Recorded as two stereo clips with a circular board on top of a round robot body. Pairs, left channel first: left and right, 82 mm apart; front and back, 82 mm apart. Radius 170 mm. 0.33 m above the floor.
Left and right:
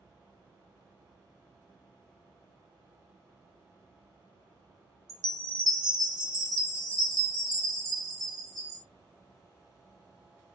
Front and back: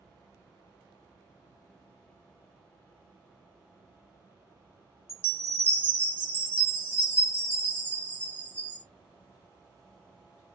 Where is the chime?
60° right, 1.9 m.